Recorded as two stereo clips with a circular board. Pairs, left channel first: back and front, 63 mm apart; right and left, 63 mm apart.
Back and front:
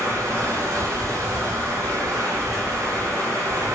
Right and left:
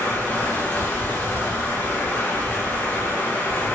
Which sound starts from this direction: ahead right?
Running water, at 0.0 s.